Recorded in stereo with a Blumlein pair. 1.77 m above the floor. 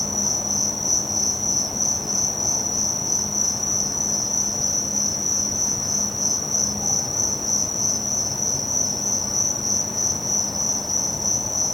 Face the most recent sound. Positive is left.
turn(degrees=5)